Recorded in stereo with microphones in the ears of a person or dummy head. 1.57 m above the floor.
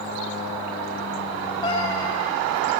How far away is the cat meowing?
About 1.5 m.